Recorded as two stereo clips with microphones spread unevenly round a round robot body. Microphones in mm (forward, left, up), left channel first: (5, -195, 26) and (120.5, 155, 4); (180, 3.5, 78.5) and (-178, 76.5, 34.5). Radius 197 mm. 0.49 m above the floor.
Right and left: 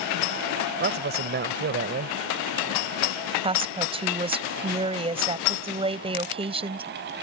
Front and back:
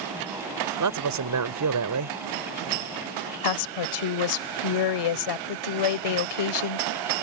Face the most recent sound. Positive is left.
turn(degrees=0)